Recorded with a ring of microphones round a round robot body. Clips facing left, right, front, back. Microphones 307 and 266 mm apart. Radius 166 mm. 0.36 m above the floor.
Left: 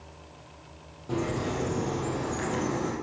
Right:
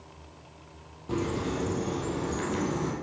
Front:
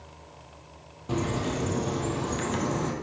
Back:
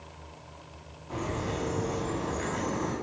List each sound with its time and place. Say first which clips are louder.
1.1 s a bird: even, front 5 dB; 10° right, 2.5 m